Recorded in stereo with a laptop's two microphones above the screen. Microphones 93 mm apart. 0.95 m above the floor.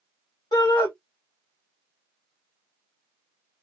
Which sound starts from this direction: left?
A shout, at 0.5 s.